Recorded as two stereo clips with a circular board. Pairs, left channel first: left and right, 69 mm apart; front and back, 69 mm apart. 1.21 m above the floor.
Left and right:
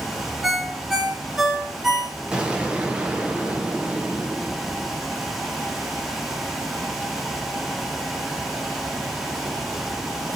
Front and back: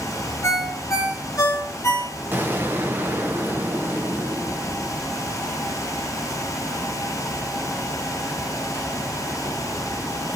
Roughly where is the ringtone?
Ahead.